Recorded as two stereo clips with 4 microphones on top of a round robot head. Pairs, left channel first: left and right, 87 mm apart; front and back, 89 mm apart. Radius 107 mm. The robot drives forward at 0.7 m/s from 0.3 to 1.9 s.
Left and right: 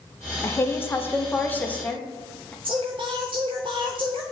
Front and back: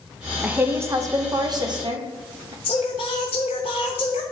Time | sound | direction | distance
0.4 | a woman speaking | 115° left | 0.9 m
2.6 | singing | 40° right | 0.6 m